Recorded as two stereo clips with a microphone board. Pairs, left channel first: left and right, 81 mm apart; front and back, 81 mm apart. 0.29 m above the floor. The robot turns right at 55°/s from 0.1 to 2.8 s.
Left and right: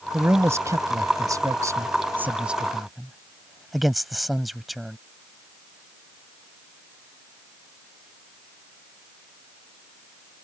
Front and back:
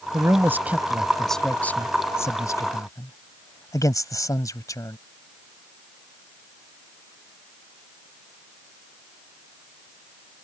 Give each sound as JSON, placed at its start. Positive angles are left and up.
{"t": 0.1, "sound": "a man speaking", "azimuth_deg": -150}